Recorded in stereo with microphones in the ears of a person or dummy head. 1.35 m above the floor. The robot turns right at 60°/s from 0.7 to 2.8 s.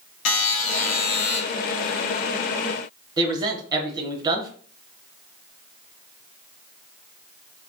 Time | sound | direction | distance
0.2 | a buzzer | 80° left | 1.3 m
3.2 | a man speaking | 25° right (ahead or behind) | 1.1 m